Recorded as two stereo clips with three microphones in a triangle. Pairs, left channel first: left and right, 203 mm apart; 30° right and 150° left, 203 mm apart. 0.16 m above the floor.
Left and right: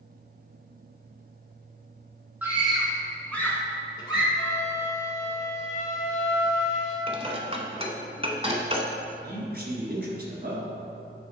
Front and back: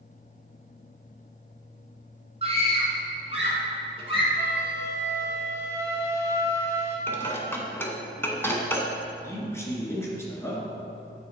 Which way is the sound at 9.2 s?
105° right.